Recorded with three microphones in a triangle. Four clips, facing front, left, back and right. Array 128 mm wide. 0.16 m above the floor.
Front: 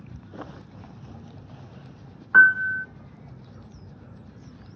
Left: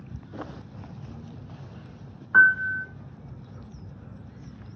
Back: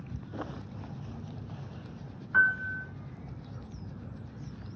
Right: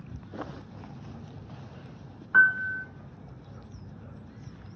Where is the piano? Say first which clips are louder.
Left 3 dB, front 10 dB; 10° left, 0.7 m.